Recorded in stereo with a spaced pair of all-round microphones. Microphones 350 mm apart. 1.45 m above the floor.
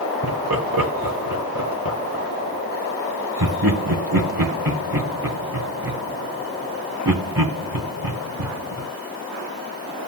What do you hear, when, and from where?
0.2 s laughter: 85° right, 4 m